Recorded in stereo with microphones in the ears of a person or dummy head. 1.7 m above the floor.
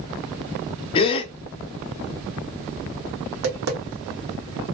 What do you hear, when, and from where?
0.9 s a gasp: 30° left (ahead or behind), 0.8 m
3.3 s tapping: 70° right (ahead or behind), 2.0 m